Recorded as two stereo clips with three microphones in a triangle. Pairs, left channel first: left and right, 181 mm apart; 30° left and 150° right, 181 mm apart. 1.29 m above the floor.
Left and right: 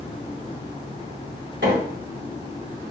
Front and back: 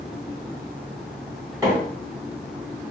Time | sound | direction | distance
1.6 | a microwave | 75° right | 1.8 m